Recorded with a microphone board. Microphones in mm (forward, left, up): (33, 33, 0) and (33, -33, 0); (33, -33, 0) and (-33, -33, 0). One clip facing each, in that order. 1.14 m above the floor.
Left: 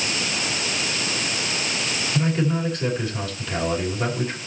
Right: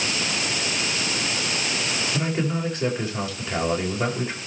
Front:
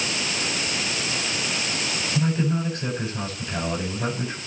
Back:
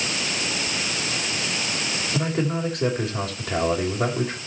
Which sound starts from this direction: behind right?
A man speaking, at 2.1 s.